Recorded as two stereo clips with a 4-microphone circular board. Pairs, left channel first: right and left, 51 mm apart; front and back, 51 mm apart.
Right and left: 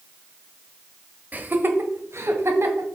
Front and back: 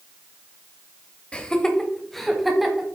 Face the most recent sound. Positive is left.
turn(degrees=95)